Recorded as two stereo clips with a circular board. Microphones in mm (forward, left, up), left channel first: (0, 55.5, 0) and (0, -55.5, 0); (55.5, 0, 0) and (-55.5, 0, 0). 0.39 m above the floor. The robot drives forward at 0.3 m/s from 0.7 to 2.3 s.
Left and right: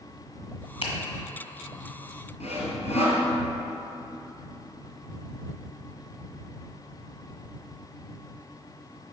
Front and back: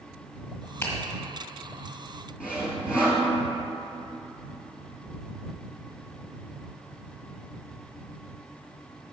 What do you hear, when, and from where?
0.8 s a finger snap: 70° left, 1.6 m
2.4 s sawing: 100° left, 1.9 m